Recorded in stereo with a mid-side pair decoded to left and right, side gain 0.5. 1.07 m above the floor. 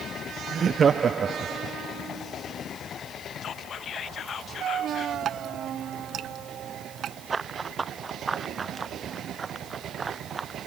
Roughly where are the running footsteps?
Ahead right.